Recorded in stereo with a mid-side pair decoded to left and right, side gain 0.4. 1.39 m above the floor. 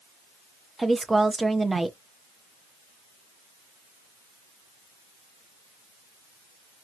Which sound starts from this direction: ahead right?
A woman speaking, at 0.8 s.